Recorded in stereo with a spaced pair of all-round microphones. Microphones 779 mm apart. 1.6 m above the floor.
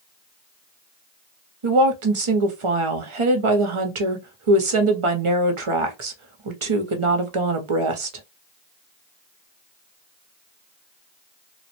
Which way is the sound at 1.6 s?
45° right (ahead or behind).